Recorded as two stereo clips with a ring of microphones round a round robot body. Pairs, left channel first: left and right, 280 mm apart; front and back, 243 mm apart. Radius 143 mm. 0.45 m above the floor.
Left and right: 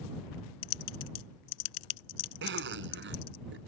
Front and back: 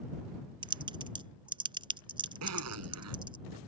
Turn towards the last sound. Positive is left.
turn(degrees=-140)